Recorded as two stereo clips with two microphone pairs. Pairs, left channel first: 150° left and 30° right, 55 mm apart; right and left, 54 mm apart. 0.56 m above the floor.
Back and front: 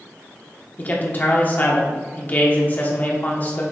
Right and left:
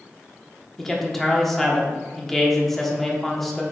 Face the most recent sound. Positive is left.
turn(degrees=-170)